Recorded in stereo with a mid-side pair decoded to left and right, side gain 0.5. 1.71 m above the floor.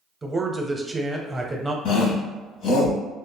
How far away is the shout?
About 1.3 m.